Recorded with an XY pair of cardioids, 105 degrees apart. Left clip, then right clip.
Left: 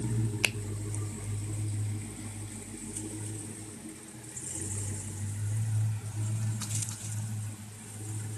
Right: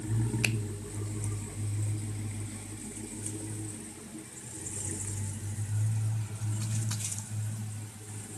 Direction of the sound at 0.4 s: 30° left.